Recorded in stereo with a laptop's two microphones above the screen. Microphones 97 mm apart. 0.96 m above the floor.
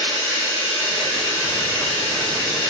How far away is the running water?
About 1.5 m.